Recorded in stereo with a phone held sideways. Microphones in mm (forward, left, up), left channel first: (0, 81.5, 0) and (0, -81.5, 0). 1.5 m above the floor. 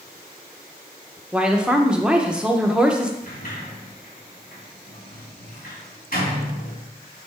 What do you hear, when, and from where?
1.3 s a woman speaking: 5° right (ahead or behind), 0.8 m
3.2 s a sliding door: 65° left (ahead or behind), 2.5 m